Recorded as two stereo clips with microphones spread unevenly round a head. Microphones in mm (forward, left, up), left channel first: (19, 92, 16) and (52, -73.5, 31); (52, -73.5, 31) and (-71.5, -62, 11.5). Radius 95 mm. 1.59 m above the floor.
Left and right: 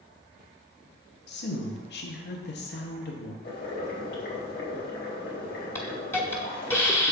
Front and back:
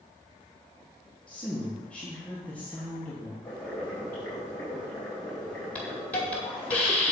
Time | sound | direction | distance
1.3 | a woman speaking | 80° left | 1.4 m
3.4 | boiling | 75° left | 3.5 m
5.8 | a hiss | 30° left | 1.4 m